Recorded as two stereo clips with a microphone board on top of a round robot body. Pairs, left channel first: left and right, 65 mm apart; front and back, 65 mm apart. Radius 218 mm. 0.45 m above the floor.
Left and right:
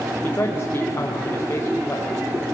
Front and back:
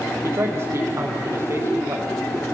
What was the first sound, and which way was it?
A man speaking, 140° left.